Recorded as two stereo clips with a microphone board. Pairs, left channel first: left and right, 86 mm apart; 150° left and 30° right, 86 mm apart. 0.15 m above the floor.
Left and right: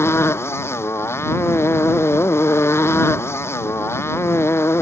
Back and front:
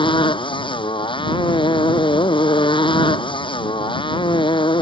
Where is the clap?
No clap in this recording.